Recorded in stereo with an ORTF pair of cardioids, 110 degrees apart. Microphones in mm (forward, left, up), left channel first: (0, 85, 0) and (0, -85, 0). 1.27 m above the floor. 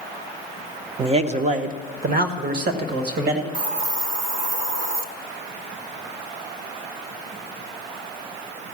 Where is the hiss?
60° right, 0.9 m.